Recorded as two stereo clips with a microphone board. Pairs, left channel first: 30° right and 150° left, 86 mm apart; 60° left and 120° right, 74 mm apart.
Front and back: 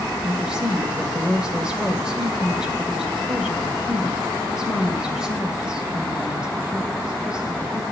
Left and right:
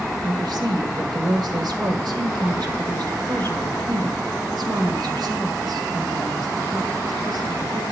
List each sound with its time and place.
0.2 s a woman speaking: 130° right, 2 m